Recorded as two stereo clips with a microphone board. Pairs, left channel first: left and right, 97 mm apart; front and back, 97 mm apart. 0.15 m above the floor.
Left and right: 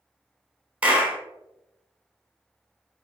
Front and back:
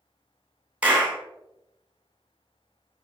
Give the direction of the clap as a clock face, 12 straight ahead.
5 o'clock.